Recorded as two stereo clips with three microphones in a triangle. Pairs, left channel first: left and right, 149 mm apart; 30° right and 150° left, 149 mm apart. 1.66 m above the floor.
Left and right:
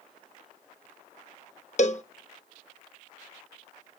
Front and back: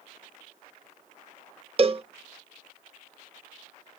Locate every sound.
1.8 s a cowbell: 110° left, 0.6 m